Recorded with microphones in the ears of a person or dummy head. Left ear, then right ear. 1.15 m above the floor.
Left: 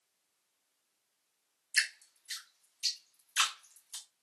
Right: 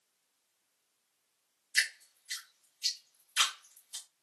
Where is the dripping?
30° left (ahead or behind), 1.2 m.